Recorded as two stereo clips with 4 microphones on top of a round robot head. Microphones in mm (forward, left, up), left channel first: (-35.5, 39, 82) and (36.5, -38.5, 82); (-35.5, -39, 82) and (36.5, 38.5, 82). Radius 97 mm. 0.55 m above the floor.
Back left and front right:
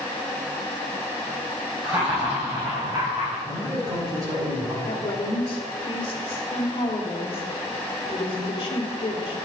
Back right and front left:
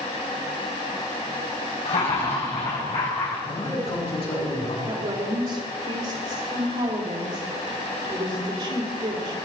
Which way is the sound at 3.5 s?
100° right.